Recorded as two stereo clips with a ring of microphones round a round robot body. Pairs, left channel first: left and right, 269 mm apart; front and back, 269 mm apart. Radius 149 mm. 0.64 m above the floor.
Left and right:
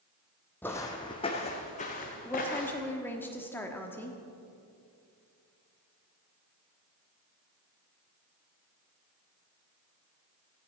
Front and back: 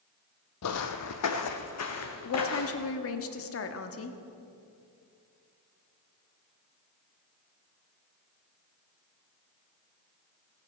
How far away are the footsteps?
About 1.0 m.